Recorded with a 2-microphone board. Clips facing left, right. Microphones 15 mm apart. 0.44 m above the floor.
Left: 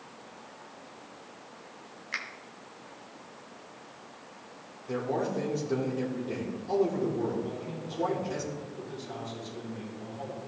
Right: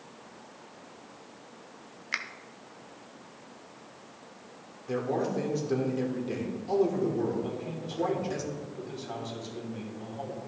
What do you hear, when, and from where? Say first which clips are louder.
2.1 s a finger snap: right 2 dB; 25° right (ahead or behind), 0.6 m
4.9 s a man speaking: right 1 dB; 20° right (ahead or behind), 1.4 m
7.4 s a man speaking: right 1 dB; 65° right (ahead or behind), 3 m